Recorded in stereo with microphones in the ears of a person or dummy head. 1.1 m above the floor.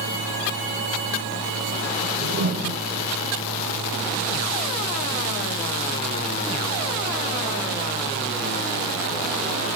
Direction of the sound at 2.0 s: 50° right (ahead or behind).